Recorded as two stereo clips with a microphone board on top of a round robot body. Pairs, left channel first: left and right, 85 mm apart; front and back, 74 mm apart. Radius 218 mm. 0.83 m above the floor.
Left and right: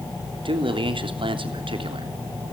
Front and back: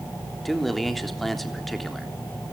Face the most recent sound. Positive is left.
turn(degrees=-90)